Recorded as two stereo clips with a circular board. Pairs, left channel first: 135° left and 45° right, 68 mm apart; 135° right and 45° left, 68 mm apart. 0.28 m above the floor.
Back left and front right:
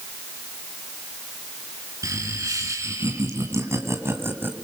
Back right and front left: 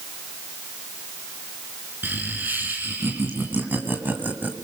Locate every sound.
2.0 s laughter: 15° right, 3.5 m; by 4.5 s 5° right, 1.6 m